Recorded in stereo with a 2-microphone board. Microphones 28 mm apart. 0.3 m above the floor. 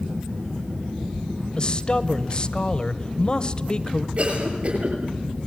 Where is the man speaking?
30° left (ahead or behind), 1.2 m.